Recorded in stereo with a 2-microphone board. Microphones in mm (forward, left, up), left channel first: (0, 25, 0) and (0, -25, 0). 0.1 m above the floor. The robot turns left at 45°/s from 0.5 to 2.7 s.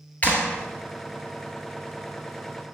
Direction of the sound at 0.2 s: 35° left (ahead or behind).